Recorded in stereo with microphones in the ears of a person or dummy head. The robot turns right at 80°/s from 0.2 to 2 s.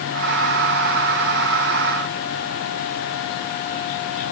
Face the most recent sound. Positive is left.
No sound to turn to.